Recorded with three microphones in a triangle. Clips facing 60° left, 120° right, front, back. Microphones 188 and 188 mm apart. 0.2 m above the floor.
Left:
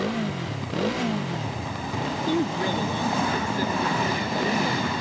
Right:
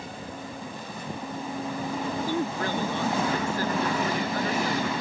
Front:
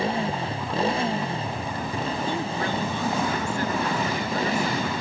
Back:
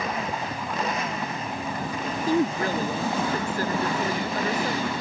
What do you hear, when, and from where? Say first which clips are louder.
0.0 s a motorcycle: left 11 dB, front 4 dB; 60° left
2.3 s a woman speaking: left 7 dB, back 4 dB; 135° left